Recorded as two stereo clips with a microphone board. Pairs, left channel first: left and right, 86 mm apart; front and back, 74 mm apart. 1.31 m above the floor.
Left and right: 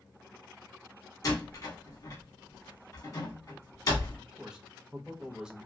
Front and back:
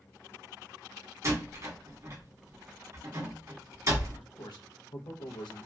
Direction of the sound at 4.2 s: 10° right.